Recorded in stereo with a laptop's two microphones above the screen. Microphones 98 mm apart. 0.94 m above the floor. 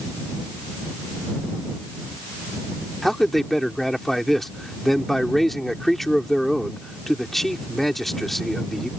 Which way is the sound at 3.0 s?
Centre (ahead or behind).